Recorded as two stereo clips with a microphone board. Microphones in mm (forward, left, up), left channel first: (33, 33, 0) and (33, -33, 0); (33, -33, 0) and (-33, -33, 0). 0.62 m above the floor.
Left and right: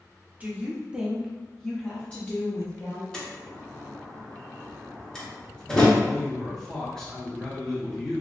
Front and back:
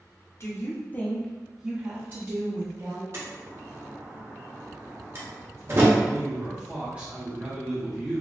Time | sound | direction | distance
0.4 | a woman speaking | 25° right | 0.8 m
3.1 | a door slam | 165° left | 0.8 m
6.0 | a man speaking | 155° left | 1.2 m